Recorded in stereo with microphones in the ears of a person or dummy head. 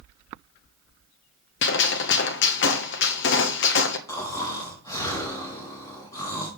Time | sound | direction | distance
1.6 | a gunshot | 50° left (ahead or behind) | 0.9 m
4.1 | snoring | 20° left (ahead or behind) | 2.5 m